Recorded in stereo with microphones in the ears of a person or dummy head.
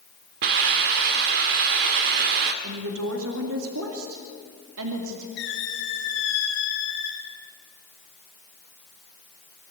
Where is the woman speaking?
80° right, 2.5 m.